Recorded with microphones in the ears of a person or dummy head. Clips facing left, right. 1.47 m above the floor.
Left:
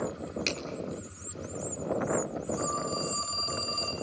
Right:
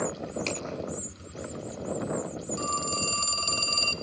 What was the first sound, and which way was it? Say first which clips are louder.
A finger snap: right 2 dB; 15° left (ahead or behind).